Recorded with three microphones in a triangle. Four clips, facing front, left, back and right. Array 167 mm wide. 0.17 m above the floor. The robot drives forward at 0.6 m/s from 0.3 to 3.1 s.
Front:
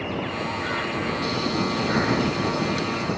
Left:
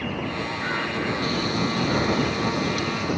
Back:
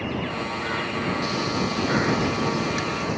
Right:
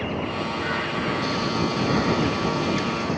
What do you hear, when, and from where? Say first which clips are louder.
1.2 s frying: right 1 dB, front 1 dB; 160° left; by 3.2 s 165° left